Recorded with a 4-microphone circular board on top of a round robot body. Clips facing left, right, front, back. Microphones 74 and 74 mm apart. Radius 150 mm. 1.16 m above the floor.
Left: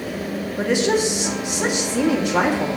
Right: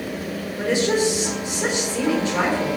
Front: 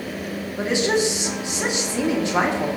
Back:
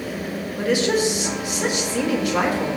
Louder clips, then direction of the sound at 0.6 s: Left 1 dB, back 1 dB; 60° left.